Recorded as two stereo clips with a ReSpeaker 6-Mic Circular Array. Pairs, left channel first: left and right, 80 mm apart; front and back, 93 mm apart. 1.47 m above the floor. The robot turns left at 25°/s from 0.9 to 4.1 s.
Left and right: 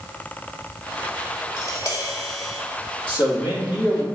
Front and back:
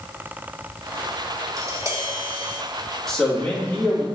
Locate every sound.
1.6 s tapping: 135° left, 2 m; by 2.6 s 110° left, 2 m
3.1 s a man speaking: 90° left, 3 m; by 4.0 s 65° left, 3 m